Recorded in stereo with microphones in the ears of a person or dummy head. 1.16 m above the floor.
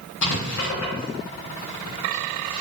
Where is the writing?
65° left (ahead or behind), 0.9 m.